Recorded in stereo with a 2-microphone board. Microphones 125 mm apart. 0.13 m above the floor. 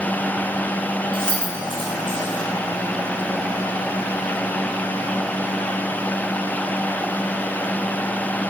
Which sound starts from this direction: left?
Keys jangling, at 1.1 s.